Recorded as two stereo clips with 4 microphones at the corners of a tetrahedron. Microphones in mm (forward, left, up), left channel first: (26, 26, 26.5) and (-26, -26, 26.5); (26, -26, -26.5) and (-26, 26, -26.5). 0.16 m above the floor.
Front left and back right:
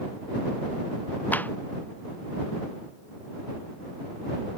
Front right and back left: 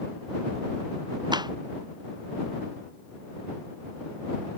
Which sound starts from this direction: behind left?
A clap, at 1.3 s.